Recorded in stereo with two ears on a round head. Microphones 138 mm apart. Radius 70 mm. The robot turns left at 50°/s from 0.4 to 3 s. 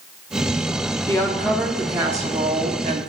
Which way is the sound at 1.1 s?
25° left.